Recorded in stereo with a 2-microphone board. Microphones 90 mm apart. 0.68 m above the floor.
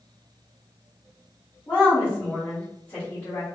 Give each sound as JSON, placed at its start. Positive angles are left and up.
{"t": 1.7, "sound": "a woman speaking", "side_deg": 30, "distance_m": 1.7}